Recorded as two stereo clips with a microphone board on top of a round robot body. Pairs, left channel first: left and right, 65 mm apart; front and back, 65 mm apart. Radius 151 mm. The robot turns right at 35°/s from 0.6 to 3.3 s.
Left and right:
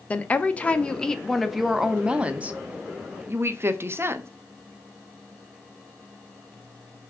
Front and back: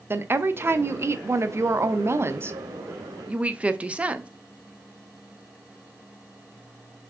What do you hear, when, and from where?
0.1 s a woman speaking: 150° left, 0.7 m; by 4.3 s 115° right, 0.7 m